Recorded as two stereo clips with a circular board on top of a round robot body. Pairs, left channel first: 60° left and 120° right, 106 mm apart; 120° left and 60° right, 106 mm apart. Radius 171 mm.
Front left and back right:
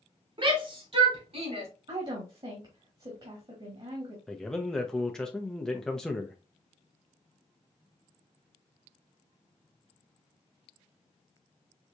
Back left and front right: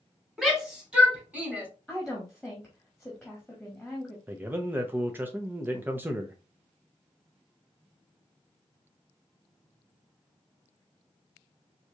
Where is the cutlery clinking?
I don't hear cutlery clinking.